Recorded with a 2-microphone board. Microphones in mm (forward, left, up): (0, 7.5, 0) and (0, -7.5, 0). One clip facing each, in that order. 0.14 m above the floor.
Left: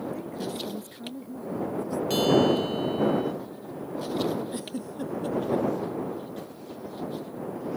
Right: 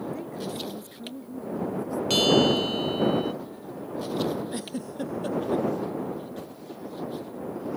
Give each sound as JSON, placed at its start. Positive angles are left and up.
{"t": 0.1, "sound": "a woman speaking", "side_deg": -5}
{"t": 2.1, "sound": "a bell", "side_deg": -30}
{"t": 4.5, "sound": "a giggle", "side_deg": -15}